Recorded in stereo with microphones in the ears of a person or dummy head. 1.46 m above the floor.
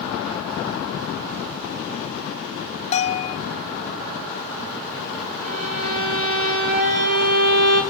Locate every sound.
2.9 s a bell: 35° left (ahead or behind), 0.7 m
5.5 s a violin: 45° right (ahead or behind), 4 m